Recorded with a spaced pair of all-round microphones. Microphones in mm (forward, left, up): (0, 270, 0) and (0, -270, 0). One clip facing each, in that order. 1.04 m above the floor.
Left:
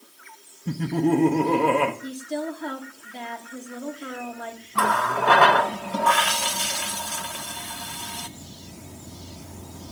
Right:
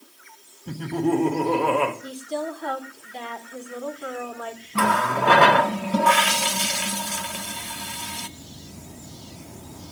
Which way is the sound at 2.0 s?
40° left (ahead or behind).